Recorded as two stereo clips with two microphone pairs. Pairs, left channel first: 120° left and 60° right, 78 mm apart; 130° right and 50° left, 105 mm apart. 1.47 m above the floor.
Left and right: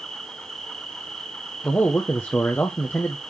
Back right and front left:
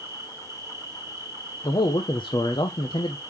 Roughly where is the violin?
I don't hear a violin.